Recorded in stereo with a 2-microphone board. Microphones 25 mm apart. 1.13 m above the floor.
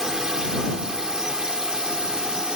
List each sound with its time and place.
0.0 s a drone: 20° right (ahead or behind); by 2.6 s 30° right (ahead or behind)